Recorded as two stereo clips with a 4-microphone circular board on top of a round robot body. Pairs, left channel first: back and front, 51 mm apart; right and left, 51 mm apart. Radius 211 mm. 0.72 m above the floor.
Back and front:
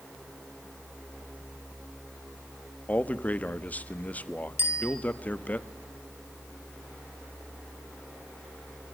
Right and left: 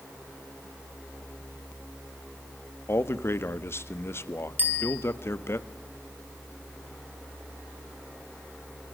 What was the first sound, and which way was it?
A man speaking, 120° right.